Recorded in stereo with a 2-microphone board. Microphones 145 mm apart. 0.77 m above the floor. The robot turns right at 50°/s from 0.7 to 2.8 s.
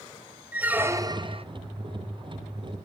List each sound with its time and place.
0.5 s a squeak: 165° right, 0.7 m; by 1.4 s 130° right, 0.7 m